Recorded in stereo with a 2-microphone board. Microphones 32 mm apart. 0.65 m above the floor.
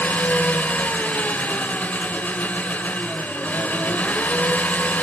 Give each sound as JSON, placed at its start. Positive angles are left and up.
{"t": 0.0, "sound": "an engine running", "side_deg": 60, "distance_m": 1.8}